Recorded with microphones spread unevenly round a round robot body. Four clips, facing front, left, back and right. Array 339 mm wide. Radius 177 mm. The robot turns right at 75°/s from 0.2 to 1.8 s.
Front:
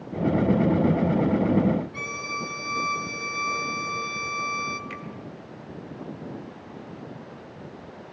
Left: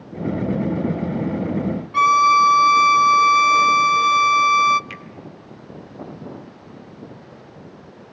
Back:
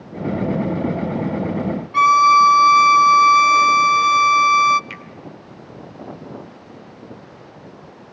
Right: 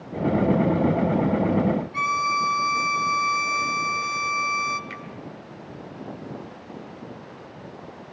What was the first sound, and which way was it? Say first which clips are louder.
A violin: left 10 dB, back 22 dB; 155° left.